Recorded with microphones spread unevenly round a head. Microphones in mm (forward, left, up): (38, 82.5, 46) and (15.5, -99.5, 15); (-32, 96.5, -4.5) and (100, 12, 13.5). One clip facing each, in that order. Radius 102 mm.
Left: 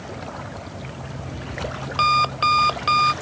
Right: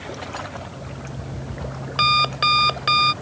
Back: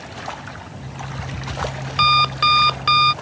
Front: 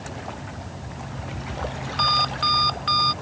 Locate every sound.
0.7 s an alarm clock: 175° right